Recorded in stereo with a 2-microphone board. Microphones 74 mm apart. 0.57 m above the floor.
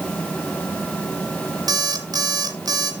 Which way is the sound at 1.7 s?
60° right (ahead or behind).